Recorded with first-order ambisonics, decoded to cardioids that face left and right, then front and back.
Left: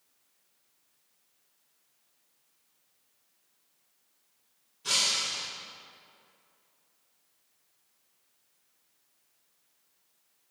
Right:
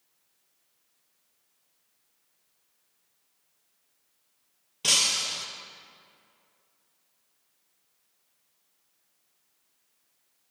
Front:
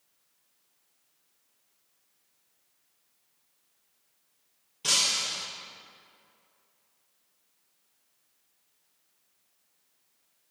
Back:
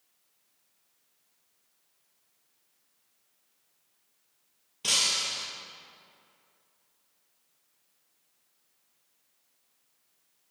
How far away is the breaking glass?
About 1.8 m.